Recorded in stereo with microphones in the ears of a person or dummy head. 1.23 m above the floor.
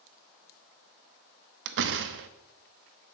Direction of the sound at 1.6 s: 60° right (ahead or behind).